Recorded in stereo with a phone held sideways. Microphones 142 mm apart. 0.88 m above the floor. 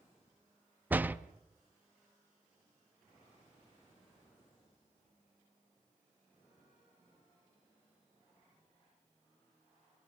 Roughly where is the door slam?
Centre.